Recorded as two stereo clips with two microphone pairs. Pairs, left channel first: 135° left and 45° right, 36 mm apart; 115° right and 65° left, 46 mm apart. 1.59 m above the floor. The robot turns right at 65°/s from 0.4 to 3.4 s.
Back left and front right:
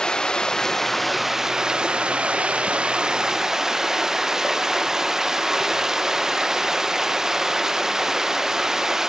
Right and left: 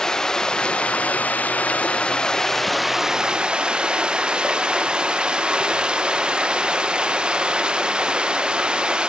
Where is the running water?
Straight behind, 0.7 m; by 9.1 s 15° left, 0.7 m.